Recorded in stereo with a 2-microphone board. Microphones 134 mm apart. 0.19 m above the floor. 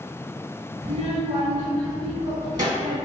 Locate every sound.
0.8 s a child speaking: 35° right (ahead or behind), 1.0 m